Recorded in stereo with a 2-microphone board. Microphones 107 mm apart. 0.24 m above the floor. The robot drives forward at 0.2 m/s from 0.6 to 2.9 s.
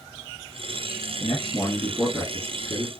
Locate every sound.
1.2 s a man speaking: 20° left (ahead or behind), 2 m